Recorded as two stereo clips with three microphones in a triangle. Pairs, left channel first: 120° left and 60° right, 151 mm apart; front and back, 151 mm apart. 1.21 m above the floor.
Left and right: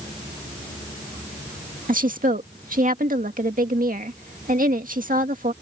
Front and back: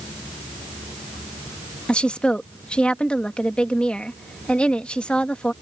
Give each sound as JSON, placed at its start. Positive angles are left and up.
{"t": 1.9, "sound": "a woman speaking", "azimuth_deg": -85}